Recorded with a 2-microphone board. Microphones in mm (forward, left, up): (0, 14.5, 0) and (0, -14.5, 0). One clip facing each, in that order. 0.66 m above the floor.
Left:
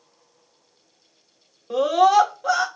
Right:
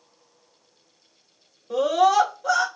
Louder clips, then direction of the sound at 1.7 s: Left 2 dB; 25° left (ahead or behind).